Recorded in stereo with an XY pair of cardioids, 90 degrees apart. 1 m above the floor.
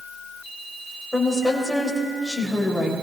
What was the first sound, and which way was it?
A woman speaking, 5° left.